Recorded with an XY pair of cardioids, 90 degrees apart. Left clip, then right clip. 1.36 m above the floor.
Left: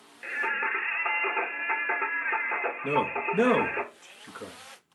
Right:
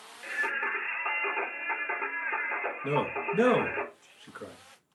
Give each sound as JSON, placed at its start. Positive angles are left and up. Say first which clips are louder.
{"t": 0.2, "sound": "singing", "louder": "left 2 dB", "azimuth_deg": 50, "distance_m": 1.2}
{"t": 2.8, "sound": "a man speaking", "louder": "left 3 dB", "azimuth_deg": 10, "distance_m": 1.3}